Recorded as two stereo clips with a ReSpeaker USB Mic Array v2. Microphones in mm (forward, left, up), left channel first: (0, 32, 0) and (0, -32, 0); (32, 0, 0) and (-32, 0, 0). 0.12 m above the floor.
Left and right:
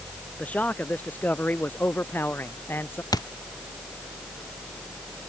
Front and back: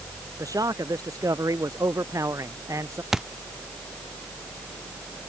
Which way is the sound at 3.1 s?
95° left.